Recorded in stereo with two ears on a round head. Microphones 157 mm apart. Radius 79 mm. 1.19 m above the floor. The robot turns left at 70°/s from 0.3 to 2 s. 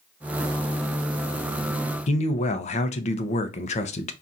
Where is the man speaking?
40° left (ahead or behind), 0.6 m.